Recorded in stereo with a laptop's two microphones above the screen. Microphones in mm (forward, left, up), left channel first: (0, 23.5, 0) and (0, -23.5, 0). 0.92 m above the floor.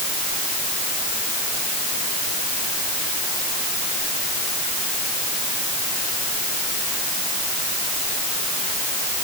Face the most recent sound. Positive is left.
No sound to turn to.